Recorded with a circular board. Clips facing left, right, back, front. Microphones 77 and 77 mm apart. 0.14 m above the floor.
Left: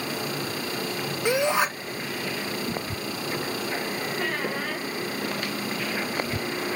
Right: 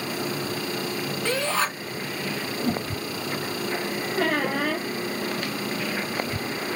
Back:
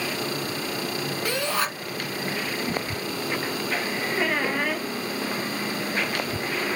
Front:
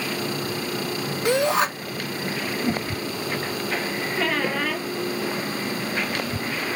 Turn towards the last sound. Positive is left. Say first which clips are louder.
# right 8 dB, front 1 dB
turn(degrees=-105)